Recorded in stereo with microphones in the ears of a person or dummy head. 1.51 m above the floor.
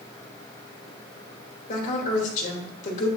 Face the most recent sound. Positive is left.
turn(degrees=45)  # may be behind; listen again after turning